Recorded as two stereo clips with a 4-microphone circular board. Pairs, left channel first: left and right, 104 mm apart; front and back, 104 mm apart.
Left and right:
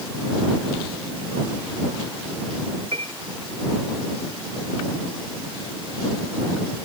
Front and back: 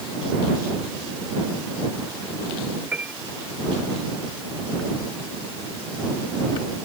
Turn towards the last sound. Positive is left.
turn(degrees=-105)